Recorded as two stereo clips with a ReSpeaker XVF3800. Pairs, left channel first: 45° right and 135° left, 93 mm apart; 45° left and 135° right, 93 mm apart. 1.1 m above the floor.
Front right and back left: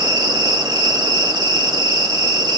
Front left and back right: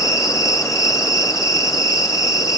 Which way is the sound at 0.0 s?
95° left.